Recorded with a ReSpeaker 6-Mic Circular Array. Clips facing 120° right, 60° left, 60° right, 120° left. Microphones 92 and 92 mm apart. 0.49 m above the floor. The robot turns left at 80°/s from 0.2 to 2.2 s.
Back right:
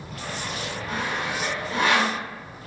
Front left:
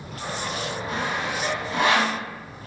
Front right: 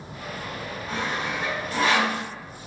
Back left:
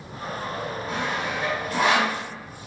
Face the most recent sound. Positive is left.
turn(degrees=170)